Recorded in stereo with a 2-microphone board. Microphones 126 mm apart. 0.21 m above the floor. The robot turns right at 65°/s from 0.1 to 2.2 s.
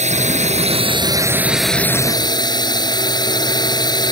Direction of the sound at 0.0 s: 100° right.